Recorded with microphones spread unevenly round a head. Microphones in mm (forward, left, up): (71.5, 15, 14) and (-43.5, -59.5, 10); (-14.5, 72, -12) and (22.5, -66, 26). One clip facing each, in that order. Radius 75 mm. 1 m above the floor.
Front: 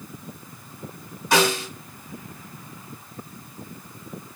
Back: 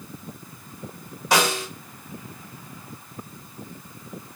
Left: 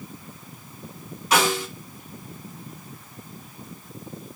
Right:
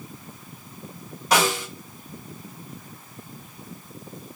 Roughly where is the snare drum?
Behind right.